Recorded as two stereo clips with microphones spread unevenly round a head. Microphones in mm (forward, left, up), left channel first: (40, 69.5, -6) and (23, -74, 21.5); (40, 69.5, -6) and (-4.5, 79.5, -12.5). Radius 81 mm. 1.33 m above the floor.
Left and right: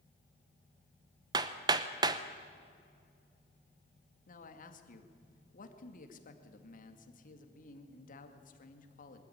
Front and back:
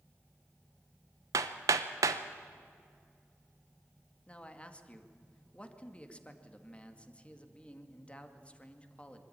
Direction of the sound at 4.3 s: 55° left.